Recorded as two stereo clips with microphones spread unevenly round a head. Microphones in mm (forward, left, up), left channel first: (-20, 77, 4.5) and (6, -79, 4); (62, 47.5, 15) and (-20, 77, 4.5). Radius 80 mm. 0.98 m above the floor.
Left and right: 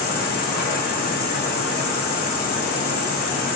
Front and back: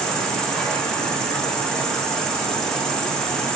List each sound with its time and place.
0.0 s an insect: 65° left, 0.9 m